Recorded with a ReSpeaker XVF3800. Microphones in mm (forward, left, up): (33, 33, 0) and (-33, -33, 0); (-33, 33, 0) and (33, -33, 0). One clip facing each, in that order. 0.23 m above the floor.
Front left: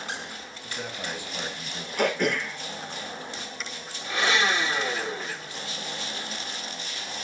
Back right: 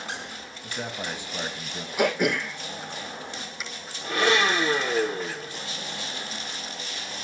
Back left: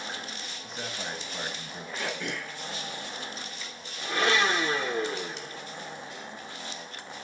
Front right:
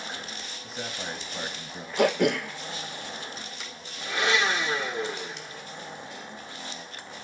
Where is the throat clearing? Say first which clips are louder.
Back right 1 dB, front right 13 dB; 50° right, 1.3 m.